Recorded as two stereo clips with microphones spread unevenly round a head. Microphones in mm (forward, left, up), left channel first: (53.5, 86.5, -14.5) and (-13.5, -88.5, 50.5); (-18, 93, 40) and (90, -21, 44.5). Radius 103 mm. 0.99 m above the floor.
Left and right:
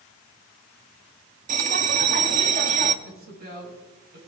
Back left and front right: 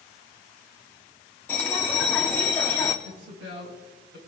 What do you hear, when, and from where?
1.5 s a bell: 145° right, 0.7 m
3.0 s a woman speaking: 70° right, 6 m